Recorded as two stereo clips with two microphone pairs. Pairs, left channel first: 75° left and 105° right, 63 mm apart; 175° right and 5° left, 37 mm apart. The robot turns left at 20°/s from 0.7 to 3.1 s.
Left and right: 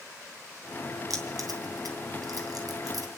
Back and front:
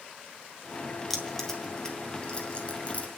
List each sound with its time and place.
1.1 s keys jangling: 90° right, 2.5 m; by 3.1 s 130° right, 2.5 m